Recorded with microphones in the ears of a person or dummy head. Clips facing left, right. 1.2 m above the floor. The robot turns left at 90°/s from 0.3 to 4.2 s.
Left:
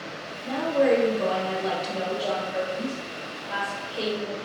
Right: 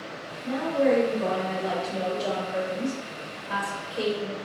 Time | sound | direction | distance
0.4 | a woman speaking | 150° left | 1.0 m